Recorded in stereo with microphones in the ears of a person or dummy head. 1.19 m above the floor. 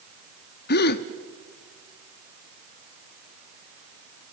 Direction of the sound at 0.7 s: 60° left (ahead or behind).